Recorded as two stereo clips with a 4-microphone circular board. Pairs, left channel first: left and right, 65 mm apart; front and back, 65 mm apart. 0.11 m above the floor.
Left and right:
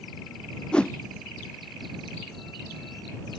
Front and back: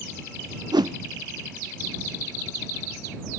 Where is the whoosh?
165° left.